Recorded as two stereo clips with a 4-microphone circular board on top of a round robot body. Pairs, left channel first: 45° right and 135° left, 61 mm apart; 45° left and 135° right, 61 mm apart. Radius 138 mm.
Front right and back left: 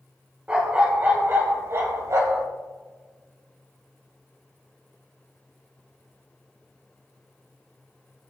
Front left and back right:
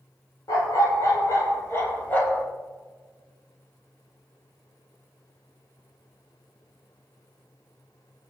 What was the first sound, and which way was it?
A dog barking, 65° left.